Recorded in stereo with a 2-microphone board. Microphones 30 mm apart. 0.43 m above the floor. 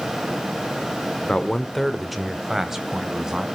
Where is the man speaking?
30° left (ahead or behind), 0.9 m; by 3.5 s 15° right (ahead or behind), 3 m.